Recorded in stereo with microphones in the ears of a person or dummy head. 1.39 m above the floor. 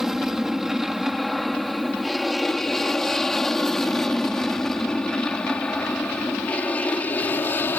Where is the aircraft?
Centre (ahead or behind); by 7.8 s 10° left (ahead or behind).